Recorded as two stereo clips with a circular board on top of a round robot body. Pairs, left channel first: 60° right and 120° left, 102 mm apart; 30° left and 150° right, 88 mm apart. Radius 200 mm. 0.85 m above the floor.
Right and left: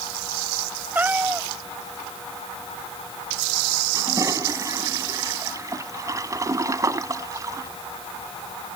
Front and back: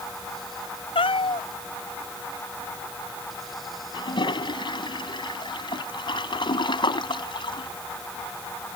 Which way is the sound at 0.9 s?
45° left.